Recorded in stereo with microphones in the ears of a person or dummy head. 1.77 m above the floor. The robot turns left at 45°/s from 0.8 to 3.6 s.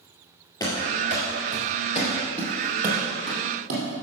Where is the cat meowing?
I don't hear a cat meowing.